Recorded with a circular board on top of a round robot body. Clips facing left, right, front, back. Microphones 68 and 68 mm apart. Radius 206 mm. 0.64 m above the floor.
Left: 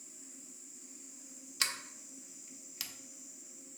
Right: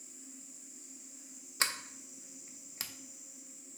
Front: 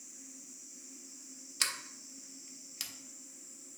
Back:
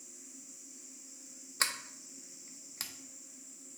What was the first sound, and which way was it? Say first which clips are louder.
A sliding door: right 3 dB, back 3 dB; 140° right.